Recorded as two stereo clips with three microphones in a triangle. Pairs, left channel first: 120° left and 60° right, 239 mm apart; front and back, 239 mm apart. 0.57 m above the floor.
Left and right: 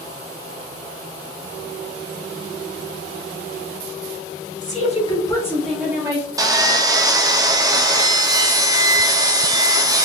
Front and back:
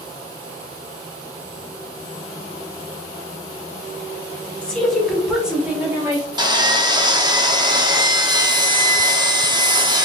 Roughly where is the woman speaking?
Left.